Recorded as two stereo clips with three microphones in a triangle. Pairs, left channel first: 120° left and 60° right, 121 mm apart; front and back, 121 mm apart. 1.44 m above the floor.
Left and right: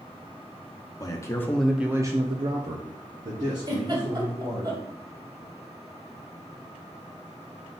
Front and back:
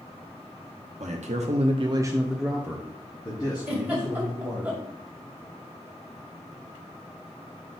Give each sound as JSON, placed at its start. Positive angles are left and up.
{"t": 1.0, "sound": "a man speaking", "azimuth_deg": 175, "distance_m": 0.8}
{"t": 3.7, "sound": "a giggle", "azimuth_deg": -105, "distance_m": 1.8}